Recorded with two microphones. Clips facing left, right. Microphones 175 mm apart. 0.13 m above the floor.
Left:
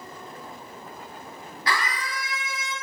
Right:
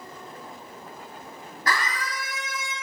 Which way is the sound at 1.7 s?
50° right (ahead or behind).